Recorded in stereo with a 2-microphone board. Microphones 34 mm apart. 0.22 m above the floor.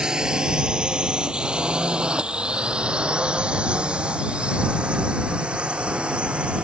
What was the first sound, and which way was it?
A drone, 20° right (ahead or behind).